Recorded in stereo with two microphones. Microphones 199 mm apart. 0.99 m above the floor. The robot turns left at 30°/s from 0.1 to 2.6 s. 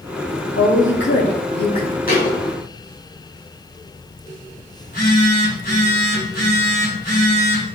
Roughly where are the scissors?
No scissors in this recording.